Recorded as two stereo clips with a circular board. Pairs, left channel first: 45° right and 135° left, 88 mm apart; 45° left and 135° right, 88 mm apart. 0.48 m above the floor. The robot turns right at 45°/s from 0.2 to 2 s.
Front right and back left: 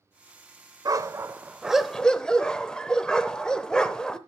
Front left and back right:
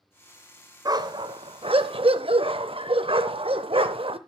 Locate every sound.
0.8 s a dog barking: straight behind, 0.6 m; by 4.2 s 125° right, 0.6 m